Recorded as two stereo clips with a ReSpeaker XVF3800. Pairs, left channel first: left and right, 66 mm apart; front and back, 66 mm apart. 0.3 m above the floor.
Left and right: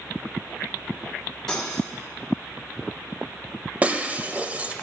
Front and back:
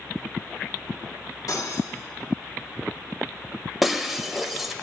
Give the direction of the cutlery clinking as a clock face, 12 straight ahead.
12 o'clock.